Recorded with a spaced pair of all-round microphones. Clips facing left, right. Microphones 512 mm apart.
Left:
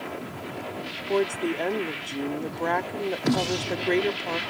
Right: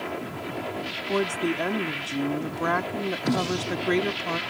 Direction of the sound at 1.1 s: 30° right (ahead or behind).